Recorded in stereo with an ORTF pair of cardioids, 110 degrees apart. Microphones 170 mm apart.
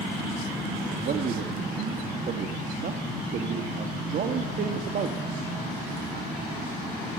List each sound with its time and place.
0.9 s a man speaking: 55° right, 3.5 m